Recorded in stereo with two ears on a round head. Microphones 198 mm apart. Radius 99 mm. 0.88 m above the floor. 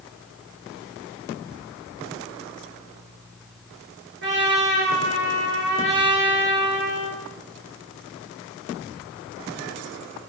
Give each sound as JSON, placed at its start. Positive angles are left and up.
{"t": 4.2, "sound": "a trumpet", "side_deg": -55, "distance_m": 3.5}